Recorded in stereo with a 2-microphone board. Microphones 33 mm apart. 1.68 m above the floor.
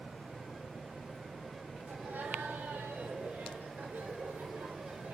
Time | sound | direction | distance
1.9 | laughter | 75° right (ahead or behind) | 6 m